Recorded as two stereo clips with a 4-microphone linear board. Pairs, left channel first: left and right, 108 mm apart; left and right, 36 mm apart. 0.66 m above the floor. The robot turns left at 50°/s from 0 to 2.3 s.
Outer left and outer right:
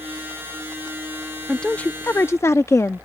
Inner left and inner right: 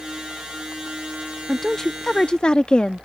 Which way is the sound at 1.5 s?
5° left (ahead or behind).